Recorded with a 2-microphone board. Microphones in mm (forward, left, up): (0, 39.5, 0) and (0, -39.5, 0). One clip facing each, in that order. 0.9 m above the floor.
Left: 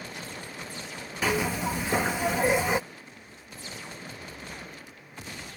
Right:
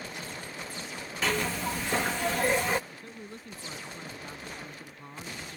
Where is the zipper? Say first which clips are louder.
Left 3 dB; 10° left (ahead or behind).